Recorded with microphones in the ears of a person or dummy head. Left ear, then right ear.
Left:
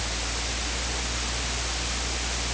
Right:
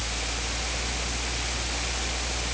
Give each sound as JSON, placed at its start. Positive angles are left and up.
{"t": 0.0, "sound": "a fan", "side_deg": -30}